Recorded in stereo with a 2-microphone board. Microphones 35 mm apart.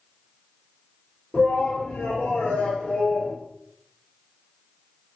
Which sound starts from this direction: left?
A shout, at 1.3 s.